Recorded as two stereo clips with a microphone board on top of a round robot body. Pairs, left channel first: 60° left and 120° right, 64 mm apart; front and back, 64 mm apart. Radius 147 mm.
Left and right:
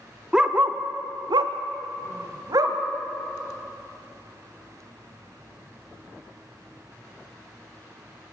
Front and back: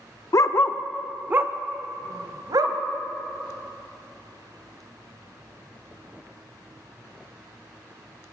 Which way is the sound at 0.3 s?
40° right.